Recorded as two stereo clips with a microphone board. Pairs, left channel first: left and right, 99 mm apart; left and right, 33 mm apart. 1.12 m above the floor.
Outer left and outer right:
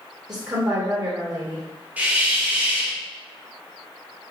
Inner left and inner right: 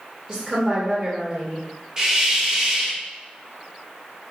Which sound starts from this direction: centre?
A hiss, at 2.0 s.